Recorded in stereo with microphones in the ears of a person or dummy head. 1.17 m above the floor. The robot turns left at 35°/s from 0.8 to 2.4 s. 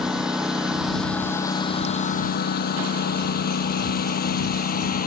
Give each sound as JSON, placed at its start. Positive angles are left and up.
{"t": 0.0, "sound": "a lawn mower", "side_deg": -5}